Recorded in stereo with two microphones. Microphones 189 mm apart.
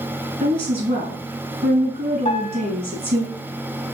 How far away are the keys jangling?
No keys jangling in this recording.